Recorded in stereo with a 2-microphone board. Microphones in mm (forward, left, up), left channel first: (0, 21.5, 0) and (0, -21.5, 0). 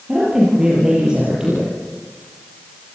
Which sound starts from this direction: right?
A woman speaking, at 0.1 s.